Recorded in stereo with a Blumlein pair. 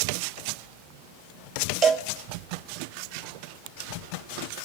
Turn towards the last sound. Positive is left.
turn(degrees=-25)